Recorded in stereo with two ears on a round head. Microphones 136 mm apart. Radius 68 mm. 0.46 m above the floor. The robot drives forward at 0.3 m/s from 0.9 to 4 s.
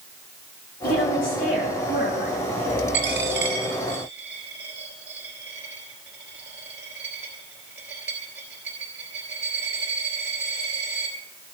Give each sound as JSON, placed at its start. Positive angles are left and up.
{"t": 0.8, "sound": "a woman speaking", "side_deg": 70, "distance_m": 5.5}
{"t": 2.9, "sound": "a dropped coin", "side_deg": -15, "distance_m": 2.5}